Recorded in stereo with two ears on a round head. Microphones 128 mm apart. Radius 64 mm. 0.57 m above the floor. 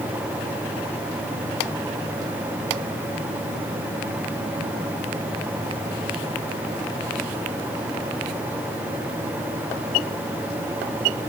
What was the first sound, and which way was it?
Only background noise.